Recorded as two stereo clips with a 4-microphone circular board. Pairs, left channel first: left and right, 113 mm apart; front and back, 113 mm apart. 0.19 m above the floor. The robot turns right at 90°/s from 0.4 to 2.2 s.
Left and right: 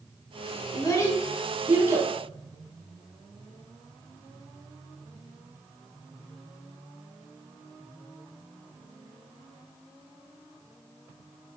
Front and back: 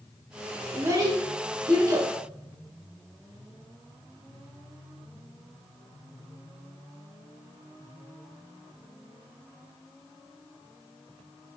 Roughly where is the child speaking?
Behind left.